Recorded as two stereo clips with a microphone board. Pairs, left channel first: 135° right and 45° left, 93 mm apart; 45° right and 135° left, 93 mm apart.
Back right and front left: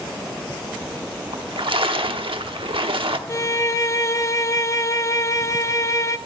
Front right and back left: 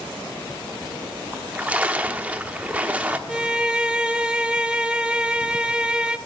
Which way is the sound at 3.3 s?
155° right.